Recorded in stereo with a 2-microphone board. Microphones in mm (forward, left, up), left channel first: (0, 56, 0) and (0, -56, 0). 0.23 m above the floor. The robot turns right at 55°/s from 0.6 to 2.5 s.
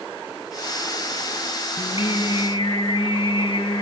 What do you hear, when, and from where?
1.8 s singing: 70° left, 2.5 m; by 3.8 s 110° left, 2.5 m